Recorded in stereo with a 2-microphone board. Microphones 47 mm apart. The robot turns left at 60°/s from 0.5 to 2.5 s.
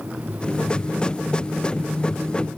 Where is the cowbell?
I don't hear a cowbell.